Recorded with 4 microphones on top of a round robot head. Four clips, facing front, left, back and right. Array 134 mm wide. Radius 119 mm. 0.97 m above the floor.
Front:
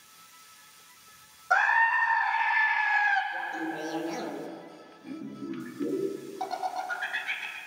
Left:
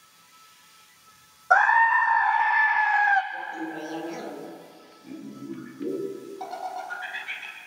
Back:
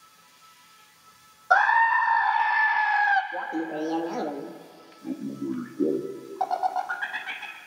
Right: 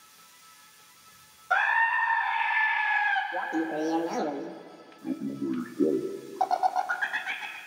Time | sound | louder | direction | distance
1.5 | a scream | left 7 dB, back 5 dB | 130° left | 1.4 m
3.3 | laughter | right 4 dB, back 4 dB | 135° right | 1.5 m